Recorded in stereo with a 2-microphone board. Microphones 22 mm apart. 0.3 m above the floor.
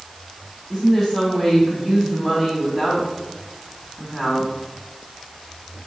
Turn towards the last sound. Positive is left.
turn(degrees=25)  # may be behind; listen again after turning